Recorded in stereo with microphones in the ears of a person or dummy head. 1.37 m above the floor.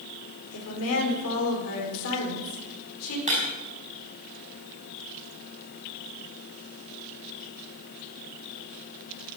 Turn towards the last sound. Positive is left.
turn(degrees=-35)  # may be behind; listen again after turning